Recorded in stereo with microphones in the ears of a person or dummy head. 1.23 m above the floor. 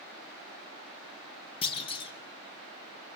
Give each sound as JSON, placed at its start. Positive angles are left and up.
{"t": 1.6, "sound": "a clunk", "side_deg": 25, "distance_m": 2.5}